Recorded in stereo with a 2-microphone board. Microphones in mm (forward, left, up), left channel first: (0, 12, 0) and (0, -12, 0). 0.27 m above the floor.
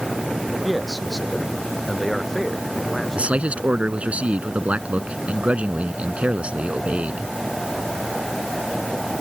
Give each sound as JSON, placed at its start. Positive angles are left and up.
{"t": 0.6, "sound": "a man speaking", "side_deg": -5}
{"t": 3.1, "sound": "a man speaking", "side_deg": -65}